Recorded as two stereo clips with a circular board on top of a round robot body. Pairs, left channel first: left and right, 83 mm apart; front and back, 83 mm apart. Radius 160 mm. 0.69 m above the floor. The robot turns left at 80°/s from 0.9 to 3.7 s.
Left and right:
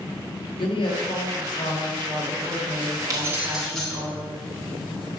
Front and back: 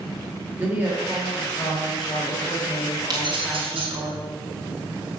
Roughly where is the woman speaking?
Left.